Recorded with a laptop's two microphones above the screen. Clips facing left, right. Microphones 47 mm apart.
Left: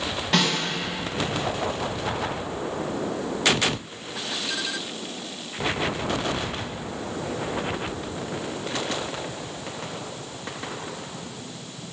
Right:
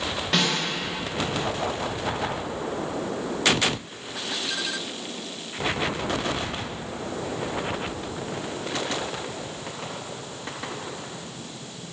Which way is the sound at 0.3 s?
Centre (ahead or behind).